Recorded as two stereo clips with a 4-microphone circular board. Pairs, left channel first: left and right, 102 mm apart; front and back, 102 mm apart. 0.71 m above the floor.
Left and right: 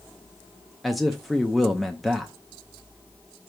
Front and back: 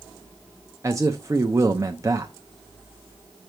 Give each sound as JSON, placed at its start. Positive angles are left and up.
{"t": 0.8, "sound": "a man speaking", "azimuth_deg": 180, "distance_m": 0.6}